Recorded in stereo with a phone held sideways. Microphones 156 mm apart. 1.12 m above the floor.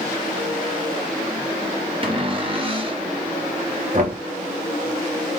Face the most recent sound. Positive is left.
turn(degrees=-55)  # may be behind; listen again after turning